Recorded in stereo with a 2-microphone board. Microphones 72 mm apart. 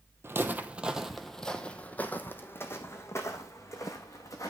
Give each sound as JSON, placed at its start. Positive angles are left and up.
{"t": 0.2, "sound": "footsteps", "side_deg": -35, "distance_m": 0.8}